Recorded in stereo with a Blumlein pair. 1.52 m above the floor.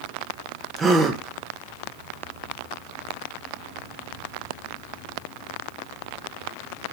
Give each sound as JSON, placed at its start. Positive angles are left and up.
{"t": 0.8, "sound": "a gasp", "azimuth_deg": -20, "distance_m": 1.2}